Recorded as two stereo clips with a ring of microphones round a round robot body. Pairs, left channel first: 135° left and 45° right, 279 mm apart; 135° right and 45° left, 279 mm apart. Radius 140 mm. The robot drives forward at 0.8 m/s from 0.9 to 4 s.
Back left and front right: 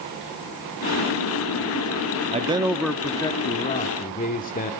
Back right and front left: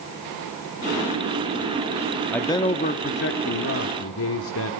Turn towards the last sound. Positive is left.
turn(degrees=-165)